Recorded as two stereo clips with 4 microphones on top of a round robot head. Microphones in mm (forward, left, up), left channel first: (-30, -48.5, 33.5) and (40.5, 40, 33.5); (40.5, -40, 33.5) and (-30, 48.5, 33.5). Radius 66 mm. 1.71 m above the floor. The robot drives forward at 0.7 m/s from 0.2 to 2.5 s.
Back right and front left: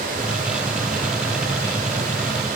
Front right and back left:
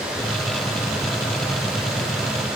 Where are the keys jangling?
No keys jangling in this recording.